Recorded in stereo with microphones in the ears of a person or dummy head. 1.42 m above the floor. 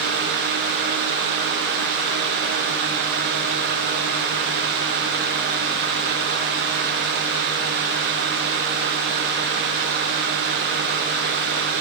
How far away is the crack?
No crack in this recording.